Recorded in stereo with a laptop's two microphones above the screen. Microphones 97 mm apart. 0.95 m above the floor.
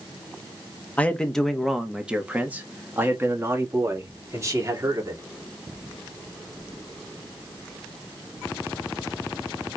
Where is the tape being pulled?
I don't hear tape being pulled.